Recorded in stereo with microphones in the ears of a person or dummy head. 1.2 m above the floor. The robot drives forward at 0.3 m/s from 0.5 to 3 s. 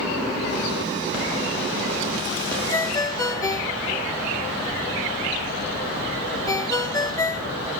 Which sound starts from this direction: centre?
A ringtone, at 2.7 s.